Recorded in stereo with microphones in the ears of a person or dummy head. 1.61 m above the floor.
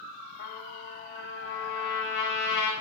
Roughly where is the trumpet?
Left.